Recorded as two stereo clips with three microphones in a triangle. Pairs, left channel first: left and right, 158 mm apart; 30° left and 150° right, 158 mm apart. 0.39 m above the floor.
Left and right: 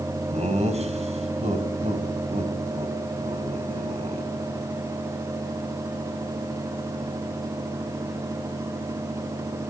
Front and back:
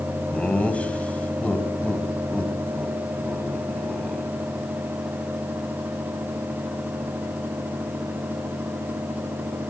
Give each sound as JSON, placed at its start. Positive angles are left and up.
{"t": 0.3, "sound": "laughter", "azimuth_deg": -50, "distance_m": 3.0}